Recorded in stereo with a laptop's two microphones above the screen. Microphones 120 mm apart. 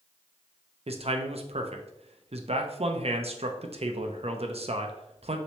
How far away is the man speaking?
About 0.7 m.